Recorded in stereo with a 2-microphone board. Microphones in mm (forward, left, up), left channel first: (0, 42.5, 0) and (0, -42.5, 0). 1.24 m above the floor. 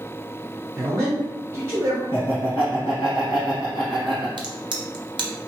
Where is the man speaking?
35° right (ahead or behind), 1.1 m.